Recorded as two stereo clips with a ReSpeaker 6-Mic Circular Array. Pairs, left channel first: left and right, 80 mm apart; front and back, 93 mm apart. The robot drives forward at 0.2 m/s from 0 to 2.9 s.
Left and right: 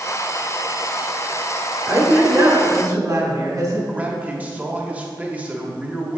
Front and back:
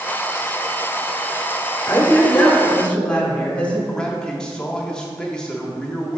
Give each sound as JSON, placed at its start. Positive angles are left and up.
{"t": 1.9, "sound": "a woman speaking", "azimuth_deg": -60, "distance_m": 1.6}
{"t": 3.9, "sound": "a man speaking", "azimuth_deg": -65, "distance_m": 0.9}